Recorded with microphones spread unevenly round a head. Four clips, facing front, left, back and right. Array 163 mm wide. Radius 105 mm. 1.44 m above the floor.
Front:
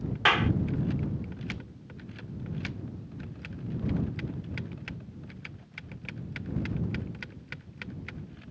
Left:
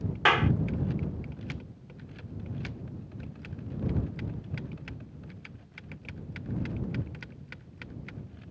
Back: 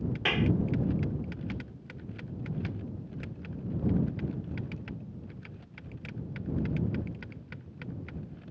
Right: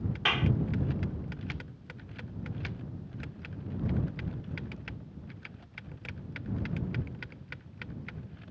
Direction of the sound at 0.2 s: 110° left.